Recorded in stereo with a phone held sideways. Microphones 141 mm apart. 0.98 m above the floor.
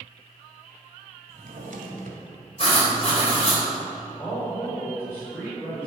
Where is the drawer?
75° right (ahead or behind), 2 m.